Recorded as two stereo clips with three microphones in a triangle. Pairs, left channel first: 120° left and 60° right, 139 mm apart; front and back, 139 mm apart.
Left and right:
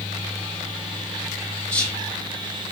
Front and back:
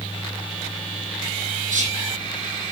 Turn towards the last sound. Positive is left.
turn(degrees=-165)